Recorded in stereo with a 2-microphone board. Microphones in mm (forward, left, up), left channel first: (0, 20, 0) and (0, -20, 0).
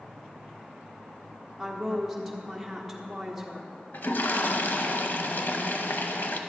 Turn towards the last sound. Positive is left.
turn(degrees=60)  # may be behind; listen again after turning